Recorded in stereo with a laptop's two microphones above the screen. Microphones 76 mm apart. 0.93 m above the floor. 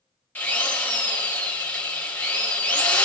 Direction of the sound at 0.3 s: 20° left (ahead or behind).